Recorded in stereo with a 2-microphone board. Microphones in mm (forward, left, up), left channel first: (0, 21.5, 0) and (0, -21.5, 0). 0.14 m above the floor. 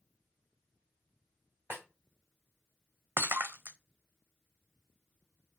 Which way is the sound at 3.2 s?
65° right (ahead or behind).